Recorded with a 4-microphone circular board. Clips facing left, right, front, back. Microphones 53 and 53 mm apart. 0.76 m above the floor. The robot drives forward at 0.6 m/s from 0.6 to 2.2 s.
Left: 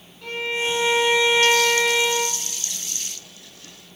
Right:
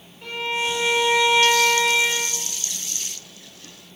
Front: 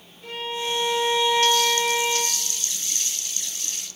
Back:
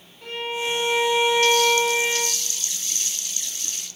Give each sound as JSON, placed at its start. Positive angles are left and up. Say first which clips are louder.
{"t": 0.2, "sound": "a violin", "louder": "even, back 2 dB", "azimuth_deg": -160, "distance_m": 7.0}